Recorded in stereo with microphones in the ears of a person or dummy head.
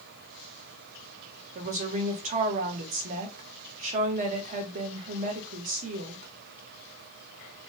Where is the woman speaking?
40° right (ahead or behind), 0.7 m.